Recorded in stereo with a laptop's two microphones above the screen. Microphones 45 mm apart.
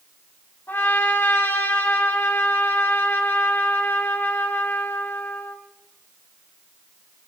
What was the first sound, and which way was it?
A trumpet, 60° left (ahead or behind).